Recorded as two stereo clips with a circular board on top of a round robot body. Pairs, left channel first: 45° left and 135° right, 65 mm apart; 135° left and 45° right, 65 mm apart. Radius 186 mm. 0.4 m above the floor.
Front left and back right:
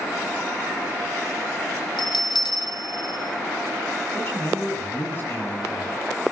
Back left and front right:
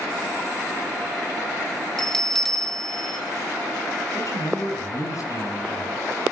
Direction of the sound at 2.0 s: 50° left.